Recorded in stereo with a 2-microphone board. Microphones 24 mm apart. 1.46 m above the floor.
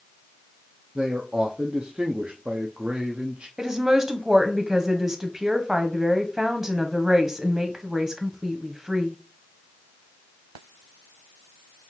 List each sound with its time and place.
0.9 s a man speaking: 60° right (ahead or behind), 0.6 m
3.6 s a woman speaking: 20° right (ahead or behind), 0.9 m